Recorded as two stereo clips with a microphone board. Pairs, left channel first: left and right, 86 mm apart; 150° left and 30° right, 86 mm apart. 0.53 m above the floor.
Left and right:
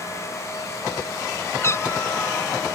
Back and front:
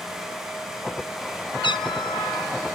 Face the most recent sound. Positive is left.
turn(degrees=145)